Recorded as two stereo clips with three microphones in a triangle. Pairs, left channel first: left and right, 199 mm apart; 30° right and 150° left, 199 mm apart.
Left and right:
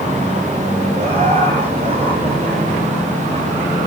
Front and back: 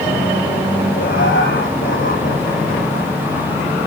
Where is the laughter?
35° right, 6 m; by 3.5 s 25° right, 7 m.